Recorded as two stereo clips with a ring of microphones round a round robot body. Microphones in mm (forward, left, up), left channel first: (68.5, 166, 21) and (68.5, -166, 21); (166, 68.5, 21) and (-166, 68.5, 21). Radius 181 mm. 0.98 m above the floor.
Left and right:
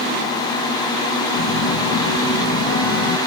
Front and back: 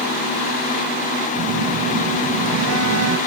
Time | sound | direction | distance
1.4 | a phone buzzing | 135° left | 0.9 m